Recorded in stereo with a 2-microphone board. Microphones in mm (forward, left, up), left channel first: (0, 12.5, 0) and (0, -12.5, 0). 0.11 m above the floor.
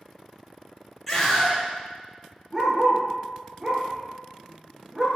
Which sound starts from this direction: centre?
A scream, at 1.1 s.